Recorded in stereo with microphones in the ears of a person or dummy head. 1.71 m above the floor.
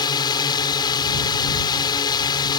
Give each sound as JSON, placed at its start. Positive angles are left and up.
{"t": 0.0, "sound": "a drone", "side_deg": 25}